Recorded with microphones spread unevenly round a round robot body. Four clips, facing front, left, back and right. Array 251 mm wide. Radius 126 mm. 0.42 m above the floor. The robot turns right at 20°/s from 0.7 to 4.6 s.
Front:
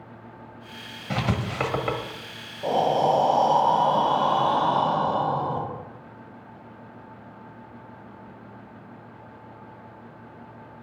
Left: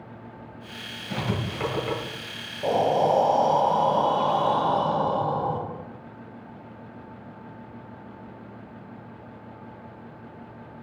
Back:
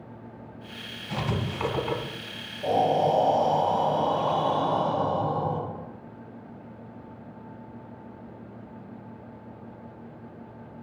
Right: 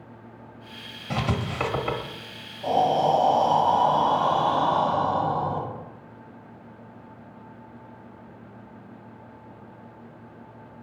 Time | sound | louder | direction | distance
1.1 | writing | right 2 dB, front 3 dB | 35° right | 1.4 m
2.6 | breathing | even, front 1 dB | 75° left | 1.6 m